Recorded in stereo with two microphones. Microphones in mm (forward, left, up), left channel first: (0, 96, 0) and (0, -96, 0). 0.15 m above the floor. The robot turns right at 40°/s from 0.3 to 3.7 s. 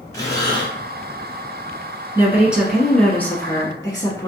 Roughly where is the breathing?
Centre.